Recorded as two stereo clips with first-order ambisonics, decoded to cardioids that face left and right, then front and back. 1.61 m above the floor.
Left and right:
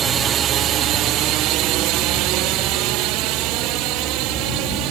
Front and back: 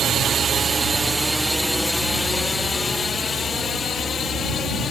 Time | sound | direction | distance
0.0 | a drone | 140° right | ?